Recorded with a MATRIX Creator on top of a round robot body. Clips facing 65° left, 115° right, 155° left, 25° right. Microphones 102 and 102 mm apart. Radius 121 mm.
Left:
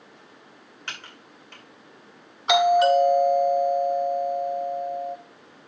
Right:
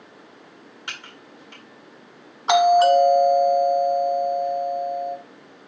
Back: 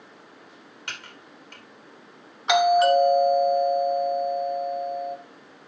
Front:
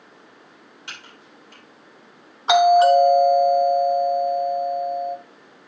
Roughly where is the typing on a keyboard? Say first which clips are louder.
Even, back 2 dB; behind.